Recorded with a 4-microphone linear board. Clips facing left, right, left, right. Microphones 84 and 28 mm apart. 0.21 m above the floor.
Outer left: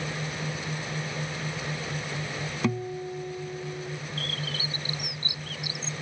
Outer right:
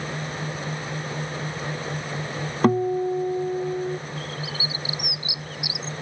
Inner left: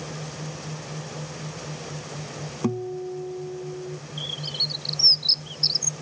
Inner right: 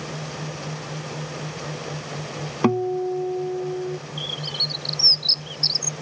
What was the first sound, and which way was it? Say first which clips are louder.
A guitar: outer right 11 dB, inner right 7 dB; 45° right (ahead or behind).